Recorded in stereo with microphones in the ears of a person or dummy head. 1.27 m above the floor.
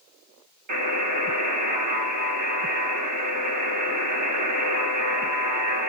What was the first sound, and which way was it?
A buzzer, 50° right (ahead or behind).